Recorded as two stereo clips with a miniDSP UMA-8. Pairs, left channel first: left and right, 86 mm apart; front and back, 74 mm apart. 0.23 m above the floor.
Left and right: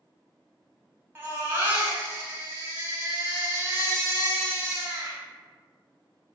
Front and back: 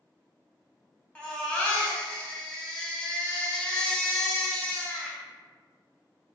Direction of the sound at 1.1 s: 60° right.